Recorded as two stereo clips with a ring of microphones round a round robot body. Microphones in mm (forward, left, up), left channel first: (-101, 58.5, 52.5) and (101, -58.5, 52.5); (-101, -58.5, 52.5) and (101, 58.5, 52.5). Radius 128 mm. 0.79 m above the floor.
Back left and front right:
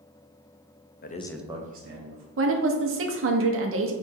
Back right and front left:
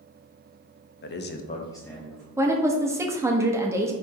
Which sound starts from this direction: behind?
A man speaking, at 1.0 s.